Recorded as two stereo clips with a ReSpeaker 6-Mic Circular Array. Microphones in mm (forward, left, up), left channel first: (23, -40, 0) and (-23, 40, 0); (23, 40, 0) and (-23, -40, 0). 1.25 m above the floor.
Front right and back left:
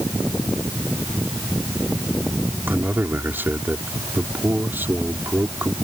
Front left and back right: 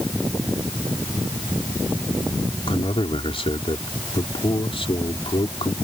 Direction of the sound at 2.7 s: 55° left.